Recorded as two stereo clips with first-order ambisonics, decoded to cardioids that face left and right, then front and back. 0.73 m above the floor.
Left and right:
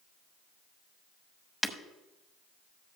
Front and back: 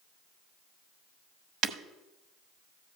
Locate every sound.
1.6 s breaking glass: 170° left, 0.7 m